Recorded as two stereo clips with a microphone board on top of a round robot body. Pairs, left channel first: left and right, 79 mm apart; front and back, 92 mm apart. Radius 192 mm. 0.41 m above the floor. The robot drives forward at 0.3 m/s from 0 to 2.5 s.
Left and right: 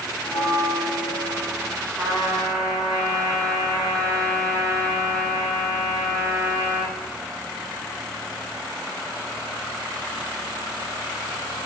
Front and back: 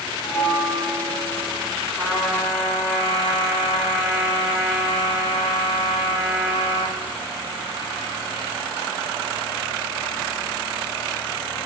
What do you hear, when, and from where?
0.2 s a bell: 95° left, 1.4 m; by 1.7 s 115° left, 1.5 m
2.0 s a trumpet: 155° right, 1.6 m